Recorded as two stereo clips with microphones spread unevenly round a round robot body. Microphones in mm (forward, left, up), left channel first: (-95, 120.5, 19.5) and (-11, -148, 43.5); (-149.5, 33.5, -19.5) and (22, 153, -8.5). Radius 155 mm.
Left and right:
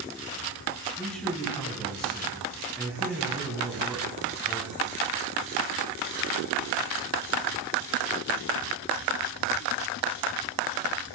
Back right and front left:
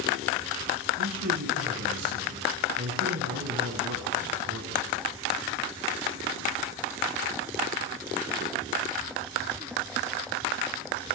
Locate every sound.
1.0 s a man speaking: 20° left, 4.5 m